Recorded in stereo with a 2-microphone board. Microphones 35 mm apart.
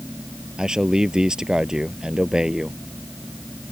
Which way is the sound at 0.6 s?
20° right (ahead or behind).